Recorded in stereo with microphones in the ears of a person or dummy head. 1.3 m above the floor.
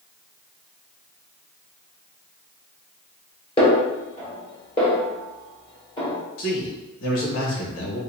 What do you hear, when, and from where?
3.6 s a snare drum: 30° left (ahead or behind), 1.4 m
6.4 s a man speaking: 70° left (ahead or behind), 1.4 m